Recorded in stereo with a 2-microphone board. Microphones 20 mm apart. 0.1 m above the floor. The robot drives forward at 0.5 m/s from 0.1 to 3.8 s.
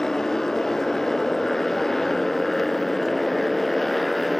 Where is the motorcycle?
20° left (ahead or behind); by 4.4 s 5° left (ahead or behind).